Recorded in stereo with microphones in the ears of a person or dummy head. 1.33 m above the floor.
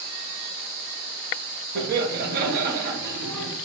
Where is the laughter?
50° right (ahead or behind), 0.9 m.